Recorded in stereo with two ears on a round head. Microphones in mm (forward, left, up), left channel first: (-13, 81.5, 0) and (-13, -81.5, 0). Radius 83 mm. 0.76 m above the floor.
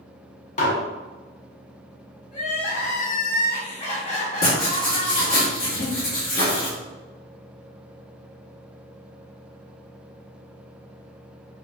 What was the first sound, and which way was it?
Dishes clattering, 40° left (ahead or behind).